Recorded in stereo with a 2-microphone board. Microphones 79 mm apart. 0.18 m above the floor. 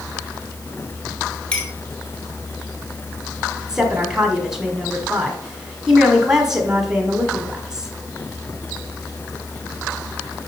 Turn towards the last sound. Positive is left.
turn(degrees=-10)  # may be behind; listen again after turning